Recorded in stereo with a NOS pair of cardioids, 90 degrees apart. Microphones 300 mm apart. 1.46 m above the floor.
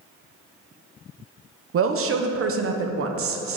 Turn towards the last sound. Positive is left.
turn(degrees=-50)